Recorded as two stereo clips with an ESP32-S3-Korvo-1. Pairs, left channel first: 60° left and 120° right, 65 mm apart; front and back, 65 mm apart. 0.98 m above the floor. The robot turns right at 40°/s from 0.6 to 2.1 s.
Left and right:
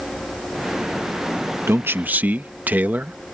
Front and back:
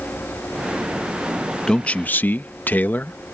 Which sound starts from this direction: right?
A man speaking, at 1.7 s.